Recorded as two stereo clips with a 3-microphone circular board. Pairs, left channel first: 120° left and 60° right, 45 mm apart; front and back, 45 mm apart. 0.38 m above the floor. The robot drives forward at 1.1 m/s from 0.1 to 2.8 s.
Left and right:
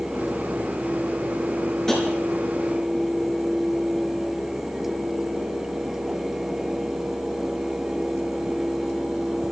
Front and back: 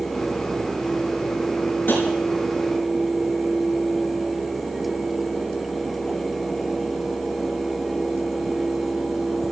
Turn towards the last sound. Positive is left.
turn(degrees=50)